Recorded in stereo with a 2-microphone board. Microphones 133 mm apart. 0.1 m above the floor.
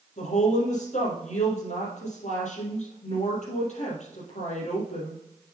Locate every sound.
0.2 s a woman speaking: 65° left (ahead or behind), 3.5 m